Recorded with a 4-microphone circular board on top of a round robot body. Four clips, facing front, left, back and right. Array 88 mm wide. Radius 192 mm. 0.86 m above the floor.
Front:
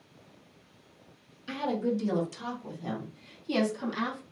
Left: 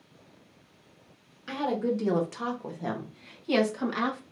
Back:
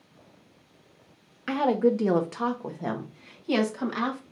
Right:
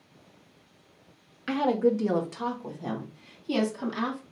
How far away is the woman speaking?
About 1.0 m.